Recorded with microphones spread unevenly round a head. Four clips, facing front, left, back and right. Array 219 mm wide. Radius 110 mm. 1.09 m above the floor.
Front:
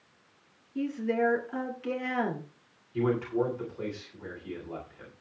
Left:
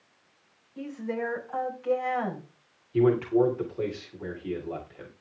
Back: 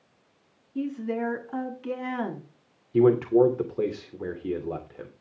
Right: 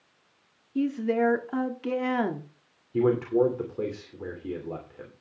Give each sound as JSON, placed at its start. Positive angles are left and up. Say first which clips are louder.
{"t": 0.8, "sound": "a woman speaking", "louder": "right 8 dB, front 1 dB", "azimuth_deg": -105, "distance_m": 2.5}
{"t": 2.9, "sound": "a man speaking", "louder": "left 1 dB, back 9 dB", "azimuth_deg": -170, "distance_m": 2.5}